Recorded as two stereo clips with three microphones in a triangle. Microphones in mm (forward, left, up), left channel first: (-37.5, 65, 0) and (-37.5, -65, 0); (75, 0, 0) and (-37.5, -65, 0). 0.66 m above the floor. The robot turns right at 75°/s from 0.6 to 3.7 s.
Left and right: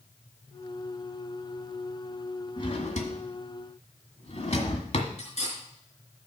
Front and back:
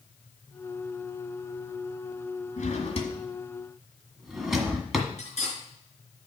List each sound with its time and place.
2.6 s a drawer: 35° left, 1.7 m; by 5.1 s 120° left, 1.7 m
5.2 s cutlery clinking: 60° left, 5 m